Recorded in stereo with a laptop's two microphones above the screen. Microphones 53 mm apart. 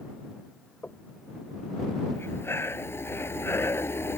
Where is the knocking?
30° left (ahead or behind).